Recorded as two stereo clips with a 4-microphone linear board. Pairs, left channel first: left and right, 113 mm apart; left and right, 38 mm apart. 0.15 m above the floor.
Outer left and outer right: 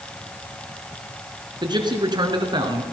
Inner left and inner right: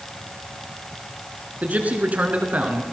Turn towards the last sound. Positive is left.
turn(degrees=-40)  # may be behind; listen again after turning